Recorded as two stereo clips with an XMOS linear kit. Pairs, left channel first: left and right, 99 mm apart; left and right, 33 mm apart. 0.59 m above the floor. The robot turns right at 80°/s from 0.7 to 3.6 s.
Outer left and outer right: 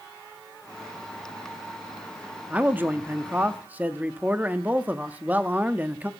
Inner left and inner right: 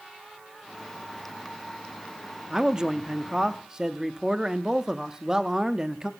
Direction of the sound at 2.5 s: 15° right (ahead or behind).